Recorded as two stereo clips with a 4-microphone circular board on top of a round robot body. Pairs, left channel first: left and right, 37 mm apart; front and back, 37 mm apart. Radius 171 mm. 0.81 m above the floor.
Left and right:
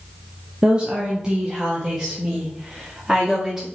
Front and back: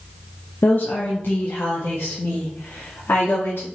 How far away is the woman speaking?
About 1.3 m.